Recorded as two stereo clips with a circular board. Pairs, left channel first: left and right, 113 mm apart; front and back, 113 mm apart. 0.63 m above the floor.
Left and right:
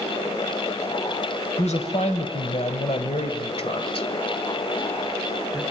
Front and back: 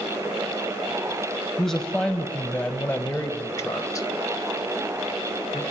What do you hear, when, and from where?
1.6 s a man speaking: 90° left, 3 m; by 5.6 s 35° left, 2.5 m